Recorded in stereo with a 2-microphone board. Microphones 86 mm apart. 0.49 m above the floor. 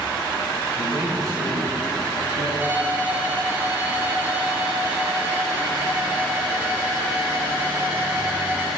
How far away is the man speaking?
About 1.8 m.